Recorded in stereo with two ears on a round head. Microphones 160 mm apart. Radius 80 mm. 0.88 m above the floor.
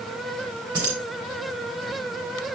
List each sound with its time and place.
0.7 s keys jangling: 25° right (ahead or behind), 3 m